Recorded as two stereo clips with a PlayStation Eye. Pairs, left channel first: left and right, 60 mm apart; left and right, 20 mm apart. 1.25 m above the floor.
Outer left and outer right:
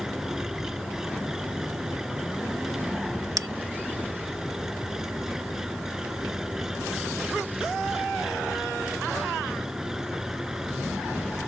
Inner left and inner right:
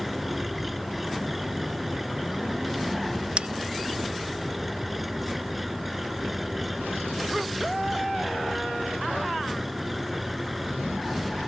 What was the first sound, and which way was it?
An engine running, 10° right (ahead or behind).